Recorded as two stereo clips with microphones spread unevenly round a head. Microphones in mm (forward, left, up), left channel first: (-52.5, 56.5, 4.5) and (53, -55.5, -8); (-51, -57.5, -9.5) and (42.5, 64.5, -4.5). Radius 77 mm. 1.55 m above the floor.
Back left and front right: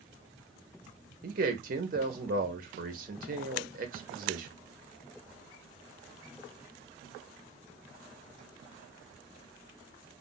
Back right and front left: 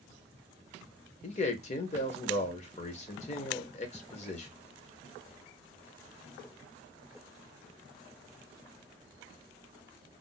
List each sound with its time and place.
1.2 s a man speaking: 80° right, 0.8 m